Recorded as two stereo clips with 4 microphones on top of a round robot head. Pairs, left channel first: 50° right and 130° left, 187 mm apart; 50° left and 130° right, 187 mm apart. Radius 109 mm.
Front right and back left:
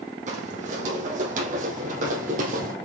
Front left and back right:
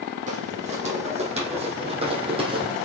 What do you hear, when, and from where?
0.3 s footsteps: straight behind, 3.5 m; by 2.8 s 170° left, 2.5 m